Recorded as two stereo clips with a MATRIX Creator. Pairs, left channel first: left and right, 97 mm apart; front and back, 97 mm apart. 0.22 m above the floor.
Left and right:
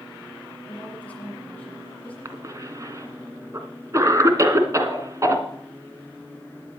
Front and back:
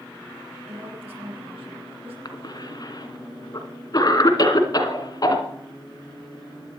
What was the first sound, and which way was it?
A woman speaking, 165° left.